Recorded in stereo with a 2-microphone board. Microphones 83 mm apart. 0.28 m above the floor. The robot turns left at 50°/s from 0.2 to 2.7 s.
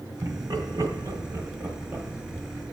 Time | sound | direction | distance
0.2 | laughter | 35° right (ahead or behind) | 1.5 m